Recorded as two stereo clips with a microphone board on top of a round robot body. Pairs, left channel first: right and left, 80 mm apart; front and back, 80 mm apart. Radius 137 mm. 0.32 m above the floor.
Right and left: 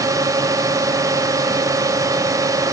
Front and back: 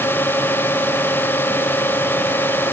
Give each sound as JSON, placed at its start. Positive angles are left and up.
{"t": 0.0, "sound": "a drone", "azimuth_deg": 60}